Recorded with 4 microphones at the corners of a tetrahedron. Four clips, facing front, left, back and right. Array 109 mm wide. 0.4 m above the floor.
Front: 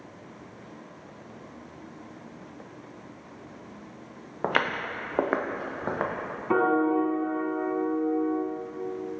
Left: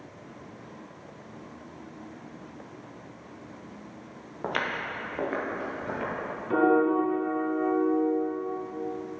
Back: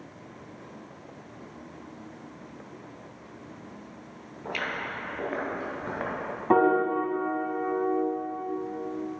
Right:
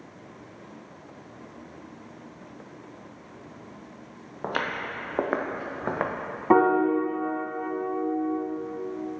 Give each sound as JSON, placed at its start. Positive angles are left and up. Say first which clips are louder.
{"t": 4.4, "sound": "footsteps", "louder": "right 1 dB, front 6 dB", "azimuth_deg": -5, "distance_m": 2.0}
{"t": 6.5, "sound": "a piano", "louder": "right 2 dB, back 1 dB", "azimuth_deg": -110, "distance_m": 2.0}